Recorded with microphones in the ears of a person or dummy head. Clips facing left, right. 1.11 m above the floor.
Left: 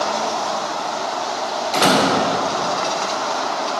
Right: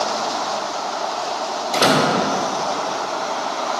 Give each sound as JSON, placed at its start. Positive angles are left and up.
{"t": 1.7, "sound": "a door slam", "side_deg": -10, "distance_m": 3.0}